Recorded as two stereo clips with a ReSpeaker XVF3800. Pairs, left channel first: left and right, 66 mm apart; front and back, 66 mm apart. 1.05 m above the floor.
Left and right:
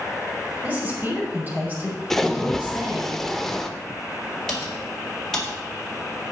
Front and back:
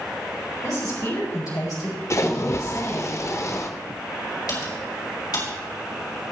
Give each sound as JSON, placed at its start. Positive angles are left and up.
{"t": 0.6, "sound": "a woman speaking", "azimuth_deg": -25, "distance_m": 5.5}
{"t": 2.1, "sound": "a splash", "azimuth_deg": 5, "distance_m": 0.9}
{"t": 4.5, "sound": "typing on a keyboard", "azimuth_deg": 10, "distance_m": 4.5}